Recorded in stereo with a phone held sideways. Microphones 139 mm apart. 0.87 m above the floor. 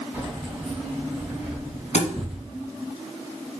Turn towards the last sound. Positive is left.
turn(degrees=60)  # may be behind; listen again after turning